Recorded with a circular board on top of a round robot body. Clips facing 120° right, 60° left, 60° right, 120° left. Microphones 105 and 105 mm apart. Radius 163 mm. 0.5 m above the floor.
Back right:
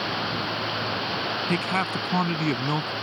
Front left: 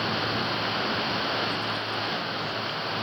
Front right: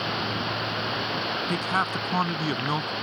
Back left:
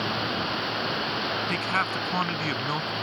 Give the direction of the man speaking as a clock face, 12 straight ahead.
4 o'clock.